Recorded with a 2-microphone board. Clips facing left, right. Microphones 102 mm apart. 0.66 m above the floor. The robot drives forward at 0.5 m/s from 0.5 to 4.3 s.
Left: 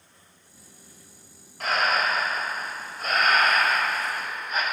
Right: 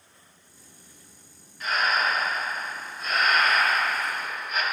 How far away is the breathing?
About 0.9 m.